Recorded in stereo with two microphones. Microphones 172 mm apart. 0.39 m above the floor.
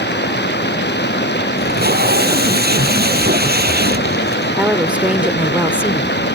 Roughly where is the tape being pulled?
Right.